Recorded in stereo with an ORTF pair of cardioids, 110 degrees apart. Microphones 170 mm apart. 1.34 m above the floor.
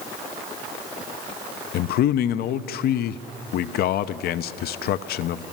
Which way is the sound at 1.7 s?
70° left.